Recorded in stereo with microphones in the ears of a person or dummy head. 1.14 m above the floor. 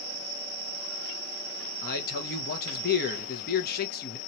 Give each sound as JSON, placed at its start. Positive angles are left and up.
{"t": 1.8, "sound": "a man speaking", "side_deg": 50, "distance_m": 0.9}